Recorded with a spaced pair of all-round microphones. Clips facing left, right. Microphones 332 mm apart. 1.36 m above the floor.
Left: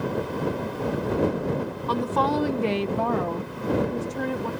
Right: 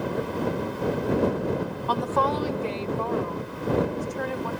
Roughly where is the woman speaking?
Left.